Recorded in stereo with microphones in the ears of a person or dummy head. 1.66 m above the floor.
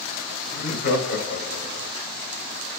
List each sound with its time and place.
0.5 s laughter: 70° left (ahead or behind), 1.2 m; by 1.9 s 45° left (ahead or behind), 1.8 m